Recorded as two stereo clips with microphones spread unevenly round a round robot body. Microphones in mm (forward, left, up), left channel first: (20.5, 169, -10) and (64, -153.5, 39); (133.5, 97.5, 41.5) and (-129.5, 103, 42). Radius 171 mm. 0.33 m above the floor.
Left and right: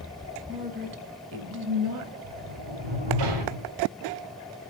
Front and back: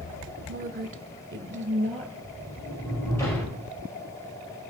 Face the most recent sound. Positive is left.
turn(degrees=-80)